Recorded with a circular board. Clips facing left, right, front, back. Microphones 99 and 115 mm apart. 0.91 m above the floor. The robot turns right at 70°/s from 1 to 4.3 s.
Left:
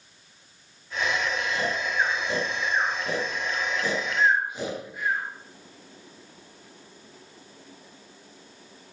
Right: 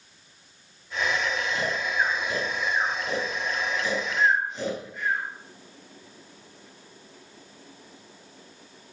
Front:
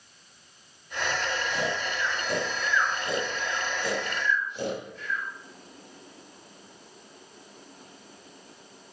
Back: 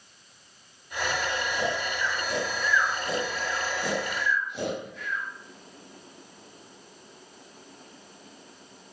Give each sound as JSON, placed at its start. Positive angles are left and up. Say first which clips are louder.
{"t": 1.5, "sound": "snoring", "louder": "even, back 1 dB", "azimuth_deg": -25, "distance_m": 8.5}